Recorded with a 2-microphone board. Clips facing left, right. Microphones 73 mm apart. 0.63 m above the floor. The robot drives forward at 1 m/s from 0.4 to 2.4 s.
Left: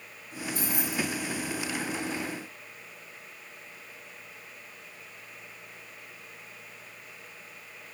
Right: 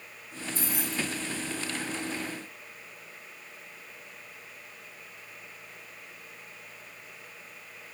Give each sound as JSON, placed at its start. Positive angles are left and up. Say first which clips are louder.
{"t": 0.6, "sound": "keys jangling", "louder": "left 2 dB", "side_deg": 50, "distance_m": 5.0}